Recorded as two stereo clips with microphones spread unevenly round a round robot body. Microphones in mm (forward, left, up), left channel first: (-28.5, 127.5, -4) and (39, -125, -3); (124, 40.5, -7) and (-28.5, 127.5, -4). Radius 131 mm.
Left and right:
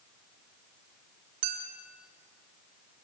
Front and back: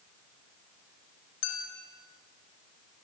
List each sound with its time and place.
1.4 s a clink: 70° right, 3.5 m